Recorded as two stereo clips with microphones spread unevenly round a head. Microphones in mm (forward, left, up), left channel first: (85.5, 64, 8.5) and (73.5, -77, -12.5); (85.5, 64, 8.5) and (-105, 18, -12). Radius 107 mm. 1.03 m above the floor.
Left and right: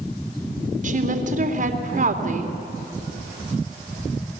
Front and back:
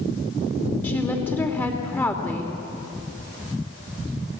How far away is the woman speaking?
About 2.5 m.